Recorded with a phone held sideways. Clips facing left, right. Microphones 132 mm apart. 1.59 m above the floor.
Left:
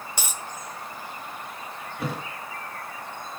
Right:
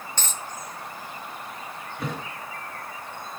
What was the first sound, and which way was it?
A dropped coin, 10° left (ahead or behind).